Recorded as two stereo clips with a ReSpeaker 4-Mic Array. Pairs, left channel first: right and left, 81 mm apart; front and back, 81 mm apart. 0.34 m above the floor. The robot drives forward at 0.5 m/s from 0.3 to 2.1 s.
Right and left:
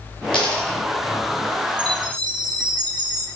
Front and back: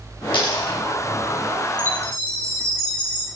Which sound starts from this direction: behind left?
A chime, at 1.8 s.